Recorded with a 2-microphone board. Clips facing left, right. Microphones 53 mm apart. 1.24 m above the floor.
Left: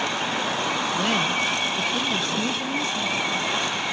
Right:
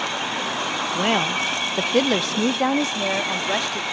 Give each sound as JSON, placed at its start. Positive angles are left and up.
{"t": 0.9, "sound": "a woman speaking", "side_deg": -25}